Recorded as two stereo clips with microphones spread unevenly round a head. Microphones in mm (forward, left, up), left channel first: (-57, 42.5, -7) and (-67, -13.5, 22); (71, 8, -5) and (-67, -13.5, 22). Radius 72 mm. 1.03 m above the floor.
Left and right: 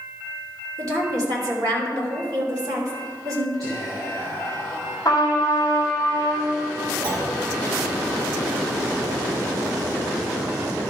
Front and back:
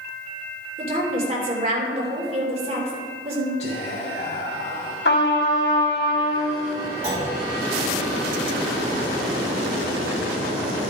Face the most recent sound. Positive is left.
turn(degrees=-95)